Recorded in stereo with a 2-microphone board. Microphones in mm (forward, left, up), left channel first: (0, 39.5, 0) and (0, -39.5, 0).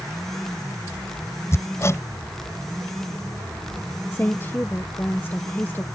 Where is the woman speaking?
25° left (ahead or behind).